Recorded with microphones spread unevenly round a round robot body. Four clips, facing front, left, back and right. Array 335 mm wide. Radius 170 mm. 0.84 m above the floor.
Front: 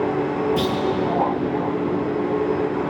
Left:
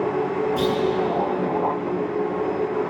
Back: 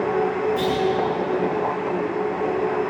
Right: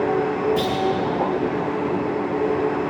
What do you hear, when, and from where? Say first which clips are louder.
0.6 s a clunk: left 1 dB, even; 10° right, 6 m